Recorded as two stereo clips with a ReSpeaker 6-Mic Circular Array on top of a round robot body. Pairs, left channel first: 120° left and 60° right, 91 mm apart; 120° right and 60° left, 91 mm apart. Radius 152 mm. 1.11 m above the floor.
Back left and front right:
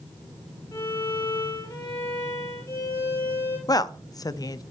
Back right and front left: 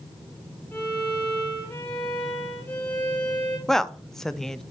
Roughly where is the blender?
No blender in this recording.